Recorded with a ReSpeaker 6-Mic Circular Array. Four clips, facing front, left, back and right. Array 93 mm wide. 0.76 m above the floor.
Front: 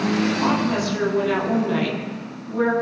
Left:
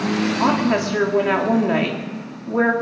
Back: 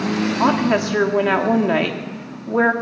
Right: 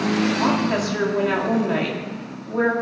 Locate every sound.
0.4 s a woman speaking: 160° left, 1.5 m